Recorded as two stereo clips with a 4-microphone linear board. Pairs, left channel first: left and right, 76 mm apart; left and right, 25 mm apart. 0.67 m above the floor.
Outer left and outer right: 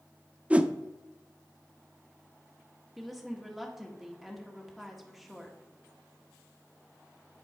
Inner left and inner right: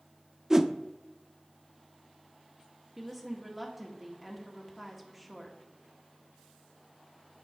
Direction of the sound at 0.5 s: 20° right (ahead or behind).